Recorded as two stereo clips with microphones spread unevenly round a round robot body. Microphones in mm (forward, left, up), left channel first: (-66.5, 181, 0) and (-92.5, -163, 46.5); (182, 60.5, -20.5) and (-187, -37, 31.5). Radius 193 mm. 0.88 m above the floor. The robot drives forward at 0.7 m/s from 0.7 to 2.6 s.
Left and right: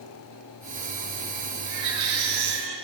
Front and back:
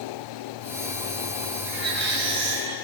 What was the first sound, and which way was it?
A baby crying, 100° right.